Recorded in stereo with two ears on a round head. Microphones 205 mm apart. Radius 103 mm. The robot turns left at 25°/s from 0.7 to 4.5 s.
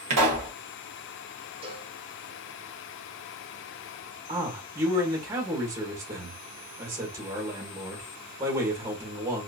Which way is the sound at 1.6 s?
25° right (ahead or behind).